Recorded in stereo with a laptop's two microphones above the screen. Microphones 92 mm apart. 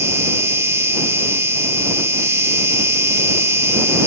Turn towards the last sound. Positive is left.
turn(degrees=-30)  # may be behind; listen again after turning